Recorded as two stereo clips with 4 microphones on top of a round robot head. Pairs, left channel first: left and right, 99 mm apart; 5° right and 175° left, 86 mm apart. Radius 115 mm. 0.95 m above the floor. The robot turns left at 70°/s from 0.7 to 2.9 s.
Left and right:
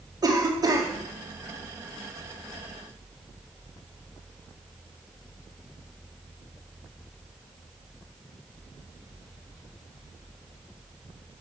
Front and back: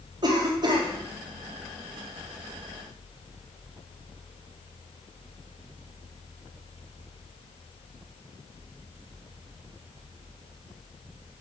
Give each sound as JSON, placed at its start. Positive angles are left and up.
{"t": 0.2, "sound": "a cough", "azimuth_deg": -140, "distance_m": 2.0}